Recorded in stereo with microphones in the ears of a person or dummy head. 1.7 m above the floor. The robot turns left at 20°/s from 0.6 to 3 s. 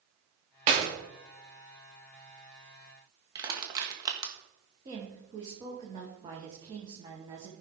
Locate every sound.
0.7 s a clap: 40° right (ahead or behind), 2.5 m
3.4 s crushing: 25° right (ahead or behind), 1.6 m
4.8 s a woman speaking: 25° right (ahead or behind), 1.6 m